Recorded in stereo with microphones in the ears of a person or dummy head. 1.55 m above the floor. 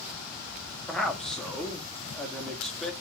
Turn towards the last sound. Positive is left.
turn(degrees=5)  # may be behind; listen again after turning